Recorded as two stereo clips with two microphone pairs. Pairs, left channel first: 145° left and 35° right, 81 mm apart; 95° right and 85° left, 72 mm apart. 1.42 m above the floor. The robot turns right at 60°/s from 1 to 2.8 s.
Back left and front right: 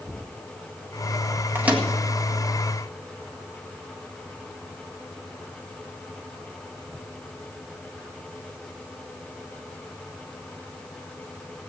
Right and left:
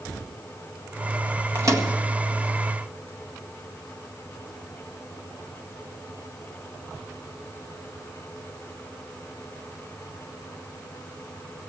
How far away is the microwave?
About 1.7 m.